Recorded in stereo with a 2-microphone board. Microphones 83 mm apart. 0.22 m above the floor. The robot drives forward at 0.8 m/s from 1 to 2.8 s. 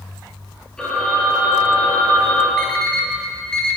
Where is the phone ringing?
10° left (ahead or behind), 3.5 m; by 2.5 s 15° left (ahead or behind), 2 m.